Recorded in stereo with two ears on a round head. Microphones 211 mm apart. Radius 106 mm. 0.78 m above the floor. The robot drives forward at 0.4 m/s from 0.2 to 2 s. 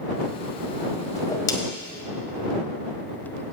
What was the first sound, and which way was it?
A whoosh, 15° left (ahead or behind).